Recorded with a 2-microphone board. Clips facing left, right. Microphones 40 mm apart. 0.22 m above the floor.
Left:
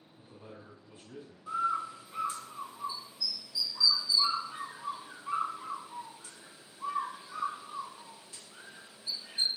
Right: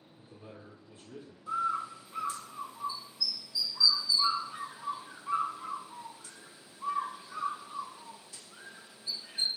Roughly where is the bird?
Left.